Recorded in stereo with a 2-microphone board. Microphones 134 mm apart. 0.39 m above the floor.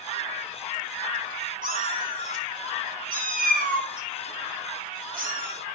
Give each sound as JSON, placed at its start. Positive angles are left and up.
{"t": 1.6, "sound": "a cat meowing", "side_deg": -80, "distance_m": 1.7}